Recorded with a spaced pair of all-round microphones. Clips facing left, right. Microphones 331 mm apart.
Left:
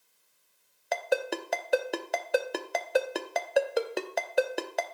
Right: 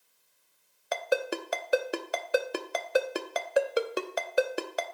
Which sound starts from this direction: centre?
A ringtone, at 0.9 s.